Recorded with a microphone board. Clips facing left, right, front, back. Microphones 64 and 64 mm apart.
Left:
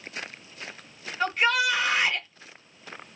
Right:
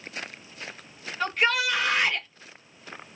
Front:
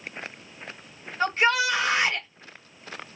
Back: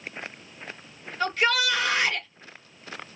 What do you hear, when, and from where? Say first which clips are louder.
1.2 s a shout: left 1 dB, front 2 dB; 5° left, 1.9 m